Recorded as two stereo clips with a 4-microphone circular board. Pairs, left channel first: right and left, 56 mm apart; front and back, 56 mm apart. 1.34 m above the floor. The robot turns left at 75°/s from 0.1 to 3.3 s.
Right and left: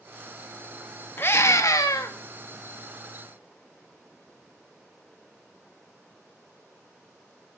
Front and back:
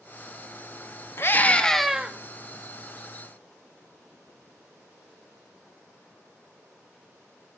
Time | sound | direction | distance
1.2 | a scream | 40° right | 2 m